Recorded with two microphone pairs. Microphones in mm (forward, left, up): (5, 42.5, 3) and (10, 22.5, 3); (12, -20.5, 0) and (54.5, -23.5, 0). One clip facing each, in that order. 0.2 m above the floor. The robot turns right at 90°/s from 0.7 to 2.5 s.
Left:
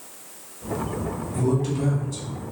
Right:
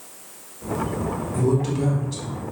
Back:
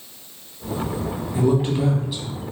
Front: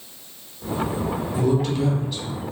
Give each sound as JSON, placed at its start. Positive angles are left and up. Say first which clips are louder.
{"t": 1.3, "sound": "a man speaking", "louder": "right 2 dB, back 2 dB", "azimuth_deg": -175, "distance_m": 1.4}